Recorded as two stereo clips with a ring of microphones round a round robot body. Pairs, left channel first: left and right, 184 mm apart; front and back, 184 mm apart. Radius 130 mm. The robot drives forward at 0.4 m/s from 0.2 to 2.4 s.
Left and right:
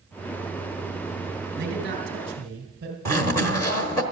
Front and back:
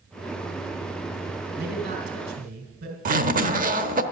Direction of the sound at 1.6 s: 130° right.